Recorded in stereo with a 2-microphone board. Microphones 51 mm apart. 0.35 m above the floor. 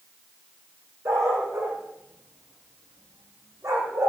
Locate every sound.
1.1 s a dog barking: 75° right (ahead or behind), 7.5 m; by 4.1 s 90° right, 7.5 m